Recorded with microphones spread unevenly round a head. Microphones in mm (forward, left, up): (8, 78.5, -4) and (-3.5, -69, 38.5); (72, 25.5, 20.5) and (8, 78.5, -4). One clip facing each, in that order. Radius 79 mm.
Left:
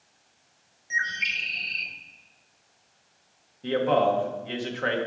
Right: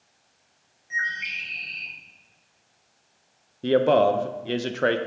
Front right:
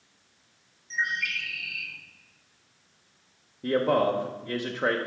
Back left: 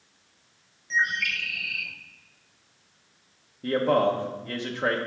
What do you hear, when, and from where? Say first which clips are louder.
0.9 s a bird: even, back left 4 dB; 140° left, 0.9 m
3.6 s a man speaking: right 4 dB, back left 1 dB; 135° right, 0.5 m